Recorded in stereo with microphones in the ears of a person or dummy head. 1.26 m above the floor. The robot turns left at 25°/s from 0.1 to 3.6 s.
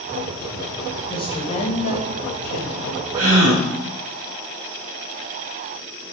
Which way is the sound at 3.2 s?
60° right (ahead or behind).